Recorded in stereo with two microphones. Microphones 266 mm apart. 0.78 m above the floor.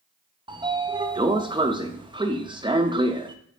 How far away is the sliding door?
About 0.7 m.